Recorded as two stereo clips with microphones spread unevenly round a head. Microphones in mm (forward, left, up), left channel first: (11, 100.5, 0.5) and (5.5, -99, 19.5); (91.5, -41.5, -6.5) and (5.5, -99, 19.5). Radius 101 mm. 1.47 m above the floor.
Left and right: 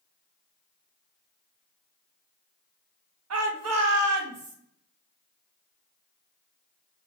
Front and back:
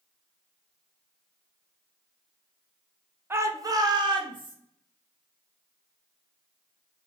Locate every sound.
3.3 s a shout: 75° right, 0.7 m; by 4.5 s 110° right, 1.2 m